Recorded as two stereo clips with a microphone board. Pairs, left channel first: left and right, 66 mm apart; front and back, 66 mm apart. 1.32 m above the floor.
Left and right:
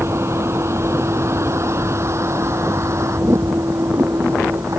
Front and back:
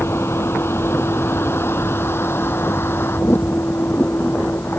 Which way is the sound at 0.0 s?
45° right.